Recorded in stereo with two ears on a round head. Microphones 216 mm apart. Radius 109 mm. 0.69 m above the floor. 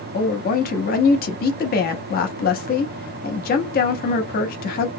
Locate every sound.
0.1 s a woman speaking: 40° left (ahead or behind), 0.6 m